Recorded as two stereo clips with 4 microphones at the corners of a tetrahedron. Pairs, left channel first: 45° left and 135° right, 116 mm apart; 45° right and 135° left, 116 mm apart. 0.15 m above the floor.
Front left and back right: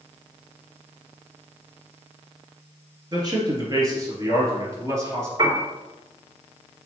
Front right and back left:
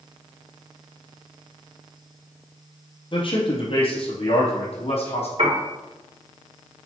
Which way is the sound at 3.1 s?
85° right.